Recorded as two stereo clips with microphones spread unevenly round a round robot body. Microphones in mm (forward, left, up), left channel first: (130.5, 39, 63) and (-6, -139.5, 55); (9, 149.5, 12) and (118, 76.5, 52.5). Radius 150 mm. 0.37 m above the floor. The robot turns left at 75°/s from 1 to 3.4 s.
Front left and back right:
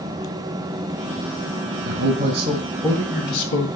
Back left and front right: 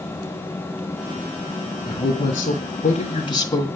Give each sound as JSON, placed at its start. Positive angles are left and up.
{"t": 1.9, "sound": "a man speaking", "azimuth_deg": -145, "distance_m": 2.0}